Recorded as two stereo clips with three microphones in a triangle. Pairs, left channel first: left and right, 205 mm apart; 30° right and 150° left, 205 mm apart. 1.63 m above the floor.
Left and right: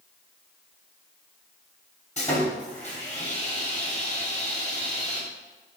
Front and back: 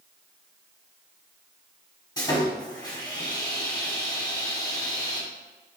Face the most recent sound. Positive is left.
turn(degrees=40)